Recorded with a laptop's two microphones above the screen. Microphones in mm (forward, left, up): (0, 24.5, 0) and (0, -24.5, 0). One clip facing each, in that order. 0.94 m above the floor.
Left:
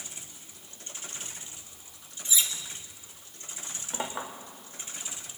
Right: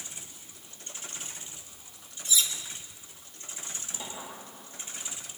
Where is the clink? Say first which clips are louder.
Left 9 dB; 80° left, 2.5 m.